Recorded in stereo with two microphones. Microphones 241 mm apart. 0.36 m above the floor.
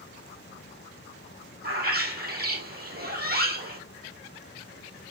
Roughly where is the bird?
Right.